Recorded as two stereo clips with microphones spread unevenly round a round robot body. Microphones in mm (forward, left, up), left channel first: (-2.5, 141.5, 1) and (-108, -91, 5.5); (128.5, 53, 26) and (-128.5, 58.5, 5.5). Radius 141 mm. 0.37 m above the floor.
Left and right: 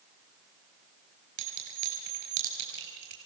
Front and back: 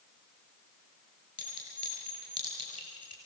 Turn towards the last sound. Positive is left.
turn(degrees=-75)